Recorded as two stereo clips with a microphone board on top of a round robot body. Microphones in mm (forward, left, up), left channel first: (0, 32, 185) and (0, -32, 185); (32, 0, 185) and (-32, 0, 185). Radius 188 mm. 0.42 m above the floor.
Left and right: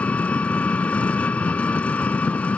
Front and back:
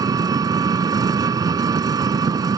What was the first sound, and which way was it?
An engine running, 160° left.